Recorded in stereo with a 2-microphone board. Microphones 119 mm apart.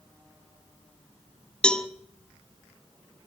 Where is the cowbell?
5° left (ahead or behind), 0.9 m.